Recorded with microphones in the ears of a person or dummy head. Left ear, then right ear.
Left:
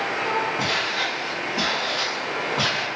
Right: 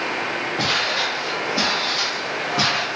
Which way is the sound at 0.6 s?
50° right (ahead or behind).